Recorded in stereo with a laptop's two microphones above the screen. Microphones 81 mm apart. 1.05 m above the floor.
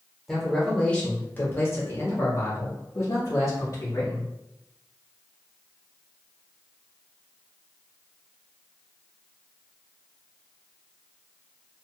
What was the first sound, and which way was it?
A man speaking, centre (ahead or behind).